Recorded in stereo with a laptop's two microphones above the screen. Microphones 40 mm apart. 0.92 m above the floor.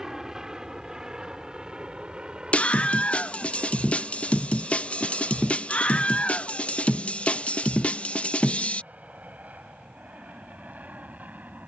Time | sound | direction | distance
0.0 | an aircraft | 15° right (ahead or behind) | ?
2.5 | a scream | 30° left (ahead or behind) | ?